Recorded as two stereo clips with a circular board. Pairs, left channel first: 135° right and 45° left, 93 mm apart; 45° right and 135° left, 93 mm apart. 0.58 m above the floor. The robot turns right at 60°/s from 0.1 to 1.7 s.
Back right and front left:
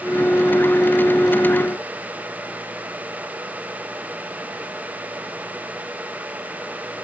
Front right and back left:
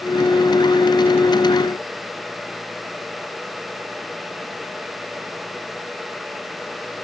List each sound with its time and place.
Only background noise.